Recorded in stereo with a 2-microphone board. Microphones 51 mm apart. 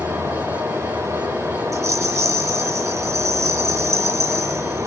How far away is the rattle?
About 6.5 m.